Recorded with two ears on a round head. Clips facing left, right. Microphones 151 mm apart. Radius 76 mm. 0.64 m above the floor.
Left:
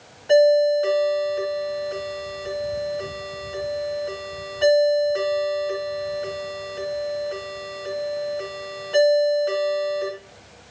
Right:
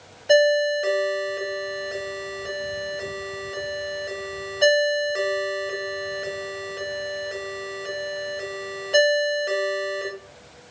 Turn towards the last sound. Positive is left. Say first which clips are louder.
# left 3 dB
turn(degrees=-25)  # may be behind; listen again after turning